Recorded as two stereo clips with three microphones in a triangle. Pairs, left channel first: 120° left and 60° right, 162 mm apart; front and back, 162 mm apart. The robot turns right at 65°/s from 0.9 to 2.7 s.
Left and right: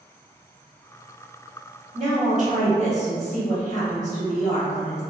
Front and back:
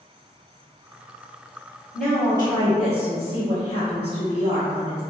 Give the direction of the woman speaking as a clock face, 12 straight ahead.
3 o'clock.